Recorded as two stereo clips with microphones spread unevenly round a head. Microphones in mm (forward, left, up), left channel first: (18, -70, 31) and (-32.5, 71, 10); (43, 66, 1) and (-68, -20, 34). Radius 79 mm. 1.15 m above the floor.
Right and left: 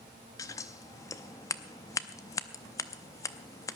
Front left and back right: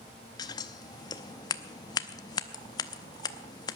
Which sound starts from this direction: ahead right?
Scissors, at 0.4 s.